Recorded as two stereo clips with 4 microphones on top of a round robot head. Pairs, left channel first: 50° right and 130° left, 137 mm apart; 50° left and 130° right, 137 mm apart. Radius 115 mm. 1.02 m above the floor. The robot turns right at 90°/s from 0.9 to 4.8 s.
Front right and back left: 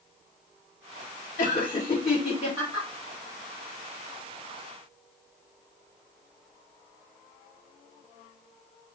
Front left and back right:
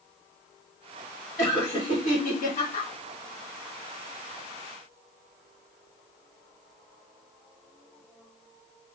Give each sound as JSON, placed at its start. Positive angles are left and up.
{"t": 1.4, "sound": "laughter", "azimuth_deg": -45, "distance_m": 1.6}